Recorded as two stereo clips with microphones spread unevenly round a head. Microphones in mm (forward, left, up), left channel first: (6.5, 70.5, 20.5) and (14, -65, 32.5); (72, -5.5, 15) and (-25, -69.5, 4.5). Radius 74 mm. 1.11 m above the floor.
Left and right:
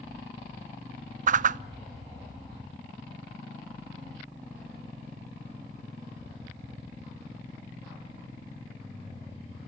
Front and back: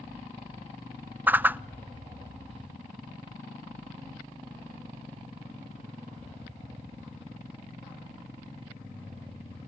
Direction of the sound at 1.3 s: 80° right.